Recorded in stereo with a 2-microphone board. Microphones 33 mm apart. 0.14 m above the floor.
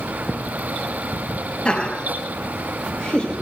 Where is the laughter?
30° left (ahead or behind), 3.5 m; by 3.3 s 25° left (ahead or behind), 5.5 m.